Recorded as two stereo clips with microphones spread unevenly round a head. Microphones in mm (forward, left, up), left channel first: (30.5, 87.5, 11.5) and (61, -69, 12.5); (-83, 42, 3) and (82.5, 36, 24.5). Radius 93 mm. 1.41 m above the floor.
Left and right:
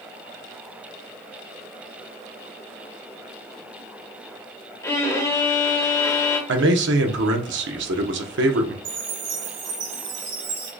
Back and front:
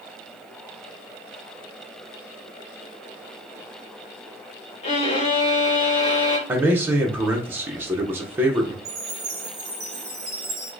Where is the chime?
75° right, 3 m.